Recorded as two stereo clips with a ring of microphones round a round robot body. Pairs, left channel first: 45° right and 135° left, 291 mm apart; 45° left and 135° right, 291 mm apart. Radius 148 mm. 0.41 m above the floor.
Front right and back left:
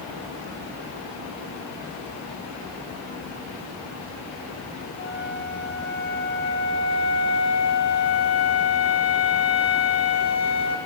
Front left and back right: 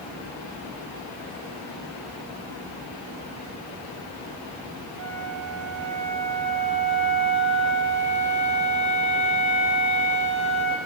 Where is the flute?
120° right, 9 m.